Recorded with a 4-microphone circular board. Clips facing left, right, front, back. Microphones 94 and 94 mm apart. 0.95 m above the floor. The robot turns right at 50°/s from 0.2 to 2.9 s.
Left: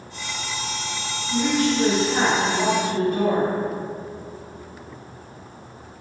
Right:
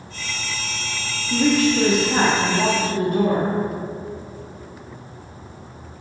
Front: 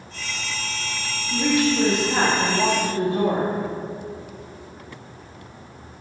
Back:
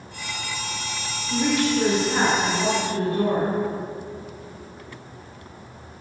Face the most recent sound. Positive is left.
turn(degrees=0)